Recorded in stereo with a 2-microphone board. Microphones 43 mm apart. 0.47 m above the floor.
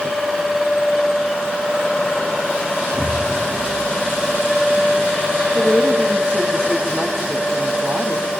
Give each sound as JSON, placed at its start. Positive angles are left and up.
{"t": 2.9, "sound": "an explosion", "side_deg": -65, "distance_m": 4.0}
{"t": 5.5, "sound": "a woman speaking", "side_deg": -40, "distance_m": 3.0}